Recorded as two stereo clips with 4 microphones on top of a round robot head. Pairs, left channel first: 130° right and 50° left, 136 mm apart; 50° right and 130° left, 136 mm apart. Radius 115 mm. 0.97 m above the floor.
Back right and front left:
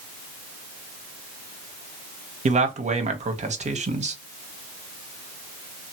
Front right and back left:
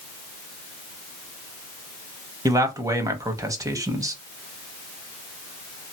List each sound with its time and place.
2.5 s a man speaking: 70° left, 1.0 m